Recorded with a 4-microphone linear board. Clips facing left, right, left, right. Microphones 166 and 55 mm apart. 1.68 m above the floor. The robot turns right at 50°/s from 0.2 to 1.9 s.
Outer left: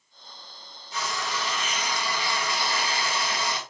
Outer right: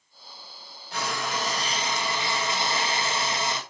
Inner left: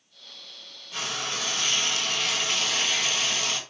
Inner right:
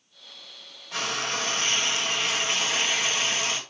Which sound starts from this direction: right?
Frying, at 0.9 s.